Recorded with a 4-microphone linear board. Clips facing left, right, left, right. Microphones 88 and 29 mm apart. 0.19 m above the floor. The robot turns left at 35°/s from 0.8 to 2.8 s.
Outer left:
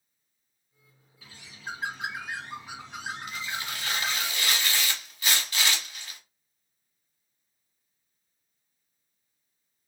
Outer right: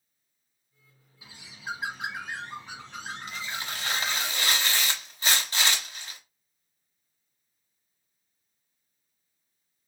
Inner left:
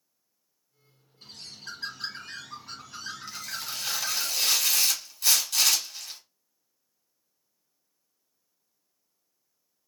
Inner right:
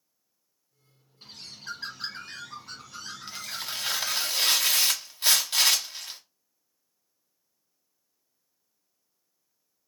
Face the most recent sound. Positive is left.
turn(degrees=-30)  # may be behind; listen again after turning